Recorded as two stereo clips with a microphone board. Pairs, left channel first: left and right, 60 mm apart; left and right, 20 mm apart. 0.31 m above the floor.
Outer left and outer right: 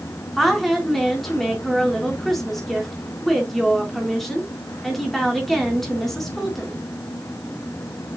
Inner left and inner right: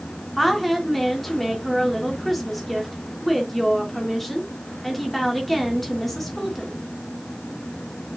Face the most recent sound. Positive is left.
turn(degrees=5)  # may be behind; listen again after turning